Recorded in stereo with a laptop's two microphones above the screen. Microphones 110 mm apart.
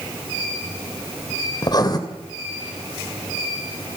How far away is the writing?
About 2.5 m.